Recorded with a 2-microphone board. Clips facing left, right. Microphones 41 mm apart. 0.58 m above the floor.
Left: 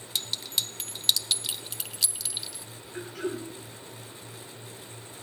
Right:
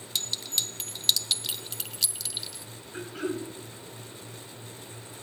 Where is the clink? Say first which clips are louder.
Even; 5° left (ahead or behind), 0.6 m.